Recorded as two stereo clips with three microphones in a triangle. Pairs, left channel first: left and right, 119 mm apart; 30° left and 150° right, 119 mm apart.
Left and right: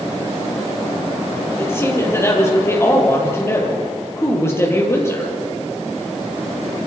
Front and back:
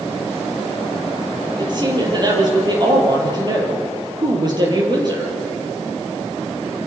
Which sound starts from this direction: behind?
A woman speaking, at 1.6 s.